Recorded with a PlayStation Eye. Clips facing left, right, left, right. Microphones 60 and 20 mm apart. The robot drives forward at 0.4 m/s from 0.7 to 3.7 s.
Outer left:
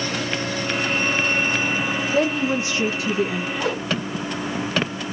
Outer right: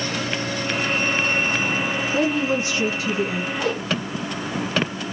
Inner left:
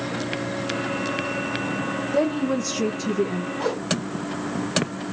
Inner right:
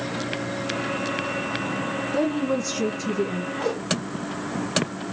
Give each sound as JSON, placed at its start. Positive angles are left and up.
{"t": 2.1, "sound": "a woman speaking", "side_deg": 15, "distance_m": 0.6}
{"t": 3.6, "sound": "a whoosh", "side_deg": 10, "distance_m": 2.5}